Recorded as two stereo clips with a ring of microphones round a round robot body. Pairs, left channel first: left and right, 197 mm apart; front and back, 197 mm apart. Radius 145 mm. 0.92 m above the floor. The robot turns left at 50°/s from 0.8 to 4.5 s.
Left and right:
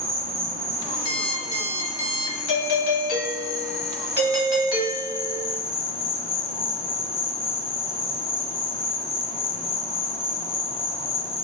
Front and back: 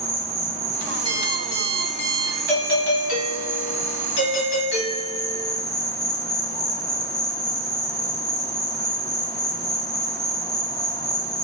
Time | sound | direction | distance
0.0 | an insect | 115° right | 0.9 m
1.1 | an alarm clock | 65° left | 2 m
2.5 | a doorbell | 75° left | 1.5 m